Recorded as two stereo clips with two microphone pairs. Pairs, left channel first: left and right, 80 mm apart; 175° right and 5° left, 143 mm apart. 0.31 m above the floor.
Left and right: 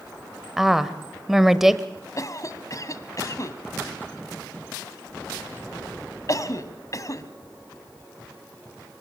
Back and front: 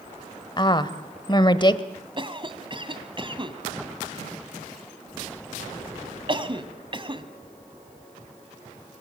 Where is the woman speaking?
175° right, 1.2 m.